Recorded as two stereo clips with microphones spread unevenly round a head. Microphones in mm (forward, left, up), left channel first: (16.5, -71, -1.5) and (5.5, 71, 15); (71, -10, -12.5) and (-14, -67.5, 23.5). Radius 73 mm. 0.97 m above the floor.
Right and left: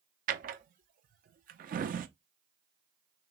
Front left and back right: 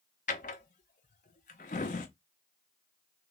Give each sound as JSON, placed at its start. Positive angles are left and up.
{"t": 0.3, "sound": "a drawer", "azimuth_deg": 65, "distance_m": 0.6}